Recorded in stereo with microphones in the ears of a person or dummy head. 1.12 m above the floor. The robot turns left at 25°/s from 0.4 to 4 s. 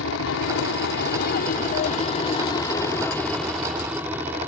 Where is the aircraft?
80° left; by 4.5 s 10° right.